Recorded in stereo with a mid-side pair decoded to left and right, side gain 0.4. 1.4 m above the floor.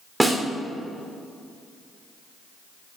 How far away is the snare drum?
About 3 m.